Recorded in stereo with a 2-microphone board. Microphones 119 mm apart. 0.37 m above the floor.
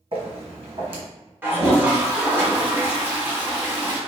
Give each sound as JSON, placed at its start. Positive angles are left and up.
{"t": 0.1, "sound": "footsteps", "side_deg": -50, "distance_m": 1.2}
{"t": 1.4, "sound": "a toilet flushing", "side_deg": -20, "distance_m": 0.7}